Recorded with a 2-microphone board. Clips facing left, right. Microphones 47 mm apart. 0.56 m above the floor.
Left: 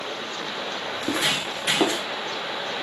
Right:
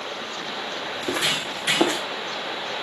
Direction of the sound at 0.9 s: 10° left (ahead or behind).